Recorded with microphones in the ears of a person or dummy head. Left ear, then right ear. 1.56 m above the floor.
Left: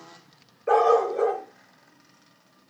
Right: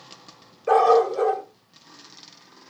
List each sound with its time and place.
0.7 s a dog barking: 20° right (ahead or behind), 2.5 m